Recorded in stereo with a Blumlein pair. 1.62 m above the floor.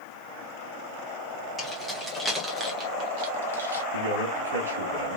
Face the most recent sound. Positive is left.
turn(degrees=-65)